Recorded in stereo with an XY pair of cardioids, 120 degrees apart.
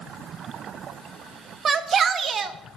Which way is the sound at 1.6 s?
40° right.